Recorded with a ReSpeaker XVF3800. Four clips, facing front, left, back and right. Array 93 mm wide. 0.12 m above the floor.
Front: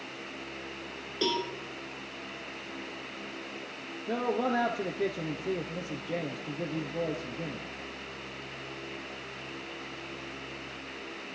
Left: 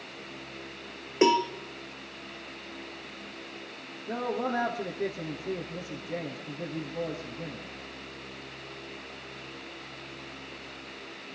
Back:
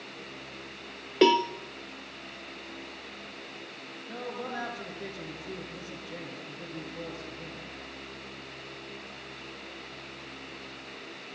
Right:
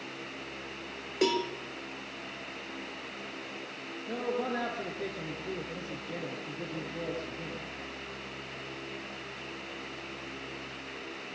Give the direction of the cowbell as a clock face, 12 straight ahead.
7 o'clock.